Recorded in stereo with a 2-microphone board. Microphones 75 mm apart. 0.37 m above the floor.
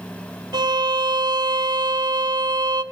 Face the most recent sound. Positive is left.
turn(degrees=-75)  # may be behind; listen again after turning